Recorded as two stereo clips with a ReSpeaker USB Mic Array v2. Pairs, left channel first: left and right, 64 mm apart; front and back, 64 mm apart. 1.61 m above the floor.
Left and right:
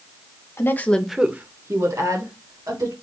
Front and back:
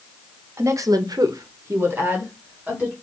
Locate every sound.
0.6 s a woman speaking: 135° left, 0.9 m; by 2.9 s 110° right, 2 m